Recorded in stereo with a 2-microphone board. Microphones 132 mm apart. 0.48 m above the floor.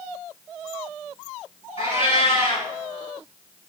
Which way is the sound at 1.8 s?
45° left (ahead or behind).